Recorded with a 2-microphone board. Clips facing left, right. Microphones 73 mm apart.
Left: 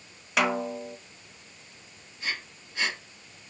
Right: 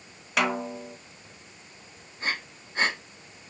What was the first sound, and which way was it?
A snare drum, centre (ahead or behind).